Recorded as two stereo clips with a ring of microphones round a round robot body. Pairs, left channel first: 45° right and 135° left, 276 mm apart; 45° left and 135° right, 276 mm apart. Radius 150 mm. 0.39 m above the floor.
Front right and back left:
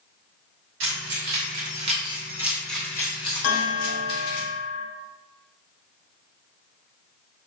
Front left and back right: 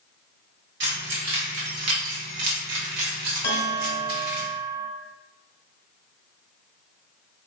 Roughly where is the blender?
I don't hear a blender.